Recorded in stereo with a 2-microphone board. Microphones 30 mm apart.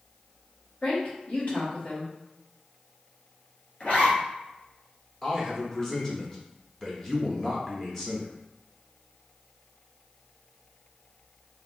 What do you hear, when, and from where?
0.8 s a woman speaking: 50° left (ahead or behind), 1.9 m
3.8 s a zipper: 50° left (ahead or behind), 2.0 m
5.2 s a man speaking: 20° left (ahead or behind), 0.9 m